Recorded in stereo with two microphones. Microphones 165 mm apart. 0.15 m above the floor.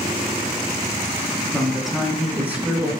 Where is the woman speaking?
5° left (ahead or behind), 1.4 m; by 2.9 s 15° right (ahead or behind), 1.7 m.